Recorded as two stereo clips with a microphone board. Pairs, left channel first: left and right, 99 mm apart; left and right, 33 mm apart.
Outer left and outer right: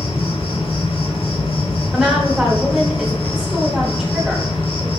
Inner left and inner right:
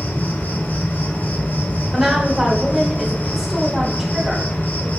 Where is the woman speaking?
5° right (ahead or behind), 0.9 m.